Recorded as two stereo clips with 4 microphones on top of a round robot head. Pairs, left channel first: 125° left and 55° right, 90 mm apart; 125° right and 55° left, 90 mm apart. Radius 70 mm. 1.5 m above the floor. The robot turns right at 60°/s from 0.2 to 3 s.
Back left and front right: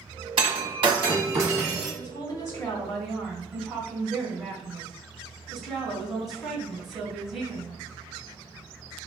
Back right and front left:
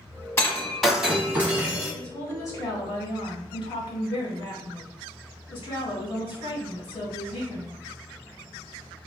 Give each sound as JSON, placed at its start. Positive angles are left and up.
{"t": 0.4, "sound": "breaking glass", "azimuth_deg": -65, "distance_m": 0.8}
{"t": 1.9, "sound": "a woman speaking", "azimuth_deg": 150, "distance_m": 1.6}